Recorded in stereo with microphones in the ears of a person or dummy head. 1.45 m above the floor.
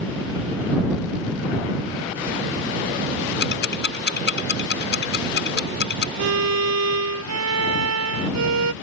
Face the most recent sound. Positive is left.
turn(degrees=-70)  # may be behind; listen again after turning